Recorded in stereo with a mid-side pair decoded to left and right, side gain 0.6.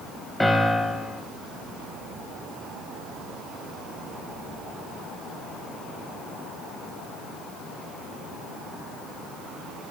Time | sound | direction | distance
0.4 | a piano | 5° left | 1.1 m